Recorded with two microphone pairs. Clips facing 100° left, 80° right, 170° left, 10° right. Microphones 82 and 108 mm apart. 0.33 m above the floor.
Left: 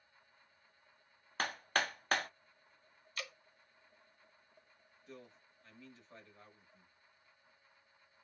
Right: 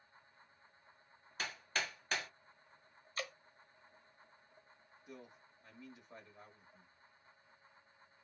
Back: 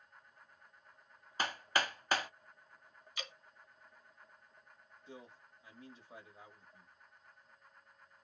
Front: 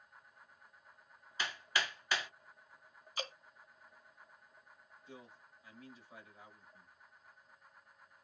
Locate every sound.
1.4 s hammering: 130° left, 0.5 m
3.2 s dripping: 40° right, 0.9 m
5.1 s a man speaking: 145° right, 1.4 m